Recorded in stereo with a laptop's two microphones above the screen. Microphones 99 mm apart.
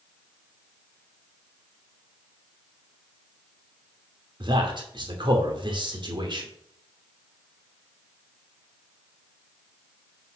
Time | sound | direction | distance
4.4 | a man speaking | 55° right (ahead or behind) | 2.5 m